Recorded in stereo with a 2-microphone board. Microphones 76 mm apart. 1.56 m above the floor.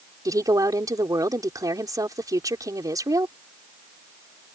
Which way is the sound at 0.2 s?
50° right (ahead or behind).